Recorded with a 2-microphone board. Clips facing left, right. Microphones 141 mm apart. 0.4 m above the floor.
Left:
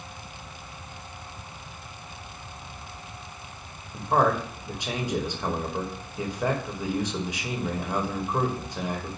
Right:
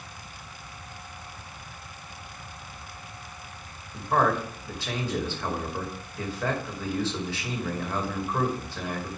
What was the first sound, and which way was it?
A man speaking, 15° left (ahead or behind).